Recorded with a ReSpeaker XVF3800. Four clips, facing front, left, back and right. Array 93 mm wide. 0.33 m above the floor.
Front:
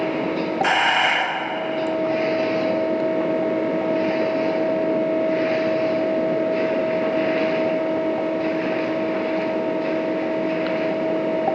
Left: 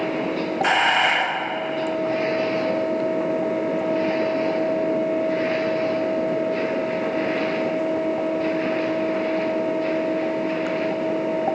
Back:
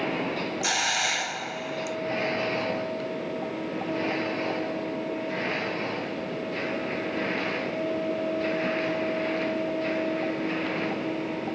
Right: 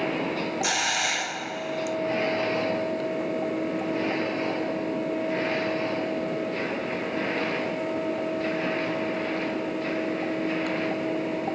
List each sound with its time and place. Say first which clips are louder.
0.6 s a hiss: left 12 dB, front 11 dB; 45° left